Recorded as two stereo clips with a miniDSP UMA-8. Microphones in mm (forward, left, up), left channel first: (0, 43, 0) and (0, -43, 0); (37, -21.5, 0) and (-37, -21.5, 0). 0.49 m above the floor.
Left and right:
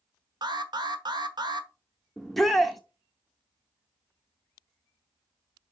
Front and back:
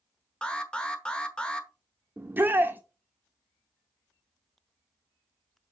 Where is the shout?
Straight behind, 0.7 m.